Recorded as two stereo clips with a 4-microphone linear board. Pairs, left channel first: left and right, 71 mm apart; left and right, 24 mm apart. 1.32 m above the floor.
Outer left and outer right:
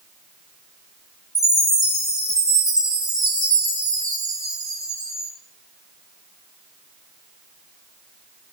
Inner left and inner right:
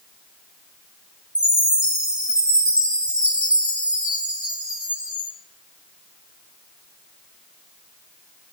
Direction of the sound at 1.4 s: 65° right (ahead or behind).